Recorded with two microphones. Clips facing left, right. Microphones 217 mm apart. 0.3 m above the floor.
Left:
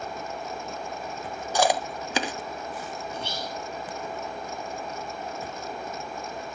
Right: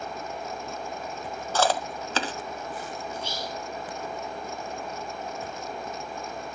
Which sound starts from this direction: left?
Whispering, at 3.1 s.